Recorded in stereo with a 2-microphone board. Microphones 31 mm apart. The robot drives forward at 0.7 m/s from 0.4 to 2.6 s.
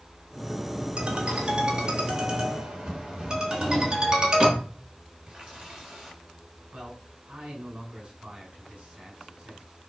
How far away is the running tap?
About 5 m.